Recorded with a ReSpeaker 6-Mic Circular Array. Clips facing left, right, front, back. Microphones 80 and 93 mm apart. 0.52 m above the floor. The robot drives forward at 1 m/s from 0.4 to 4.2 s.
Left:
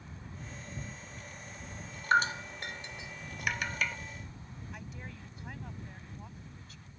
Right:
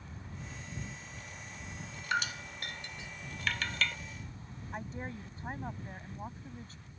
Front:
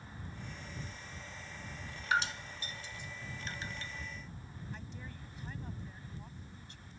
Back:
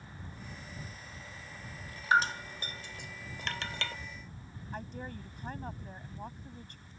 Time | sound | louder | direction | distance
2.1 | dripping | left 7 dB, back 6 dB | 130° left | ?
4.7 | a woman speaking | right 8 dB, back 10 dB | 145° right | ?